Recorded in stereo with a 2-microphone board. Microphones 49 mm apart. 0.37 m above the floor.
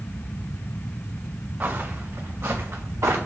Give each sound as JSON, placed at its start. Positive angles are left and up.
{"t": 1.6, "sound": "footsteps", "side_deg": -45, "distance_m": 1.9}